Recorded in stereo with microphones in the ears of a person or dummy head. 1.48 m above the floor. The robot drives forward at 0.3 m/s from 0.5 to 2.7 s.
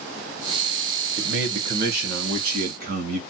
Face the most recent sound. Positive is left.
turn(degrees=-50)  # may be behind; listen again after turning